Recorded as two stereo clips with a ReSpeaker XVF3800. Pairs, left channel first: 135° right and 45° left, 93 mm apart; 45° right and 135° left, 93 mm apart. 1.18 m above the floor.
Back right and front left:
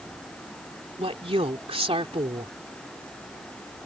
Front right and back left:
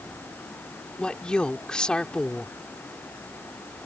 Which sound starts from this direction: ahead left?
A woman speaking, at 1.0 s.